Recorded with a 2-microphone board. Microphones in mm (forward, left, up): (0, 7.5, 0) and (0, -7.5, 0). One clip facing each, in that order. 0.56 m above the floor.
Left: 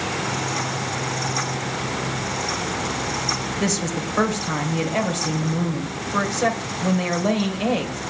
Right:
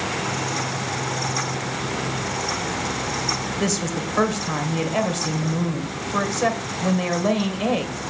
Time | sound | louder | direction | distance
3.6 | a woman speaking | even | 5° right (ahead or behind) | 2 m